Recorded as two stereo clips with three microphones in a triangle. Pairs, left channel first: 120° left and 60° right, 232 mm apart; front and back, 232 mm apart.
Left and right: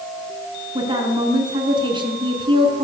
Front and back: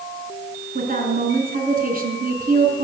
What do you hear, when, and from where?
0.8 s a woman speaking: 130° right, 4 m